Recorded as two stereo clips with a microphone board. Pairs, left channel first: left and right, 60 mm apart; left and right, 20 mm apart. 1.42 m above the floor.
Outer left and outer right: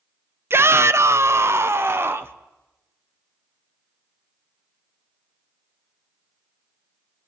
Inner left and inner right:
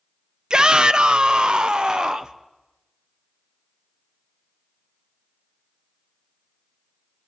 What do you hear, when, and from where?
0.5 s a shout: 45° right (ahead or behind), 0.6 m; by 2.3 s 40° right (ahead or behind), 1.1 m